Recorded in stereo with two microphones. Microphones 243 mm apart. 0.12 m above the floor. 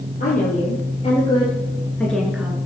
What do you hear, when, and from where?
0.2 s a woman speaking: 35° left (ahead or behind), 3.5 m; by 2.5 s 10° right (ahead or behind), 1.8 m